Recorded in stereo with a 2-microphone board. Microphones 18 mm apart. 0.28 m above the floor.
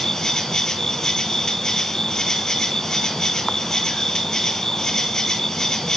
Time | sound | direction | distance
0.0 | an insect | 30° left (ahead or behind) | 1.8 m